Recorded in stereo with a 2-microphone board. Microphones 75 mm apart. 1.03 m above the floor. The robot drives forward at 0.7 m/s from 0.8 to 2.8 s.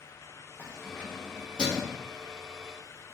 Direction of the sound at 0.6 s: 15° left (ahead or behind).